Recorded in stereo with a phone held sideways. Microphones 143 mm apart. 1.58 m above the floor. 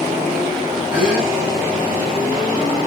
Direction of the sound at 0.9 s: 20° right (ahead or behind).